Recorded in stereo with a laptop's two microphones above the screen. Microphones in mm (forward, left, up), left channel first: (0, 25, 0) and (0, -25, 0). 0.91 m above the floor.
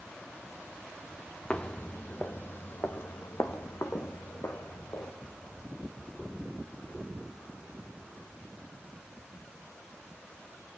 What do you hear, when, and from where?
1.5 s footsteps: 20° left (ahead or behind), 1.0 m; by 5.1 s 65° left (ahead or behind), 3.5 m